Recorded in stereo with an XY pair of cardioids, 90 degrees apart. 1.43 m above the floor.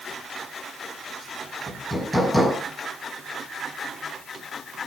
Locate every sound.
1.7 s hammering: 5° left, 9 m